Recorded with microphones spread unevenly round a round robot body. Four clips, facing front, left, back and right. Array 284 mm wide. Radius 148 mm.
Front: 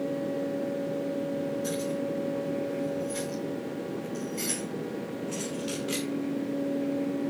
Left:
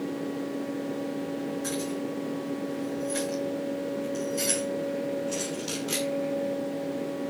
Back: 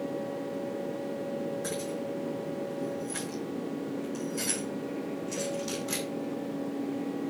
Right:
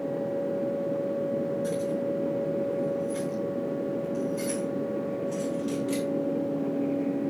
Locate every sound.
1.6 s keys jangling: 165° left, 7 m; by 6.1 s 160° right, 1.3 m